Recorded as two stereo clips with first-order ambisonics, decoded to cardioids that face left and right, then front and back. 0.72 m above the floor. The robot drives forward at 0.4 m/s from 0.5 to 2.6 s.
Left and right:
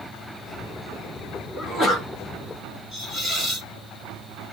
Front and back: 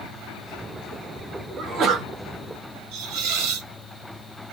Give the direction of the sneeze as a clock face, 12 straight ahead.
7 o'clock.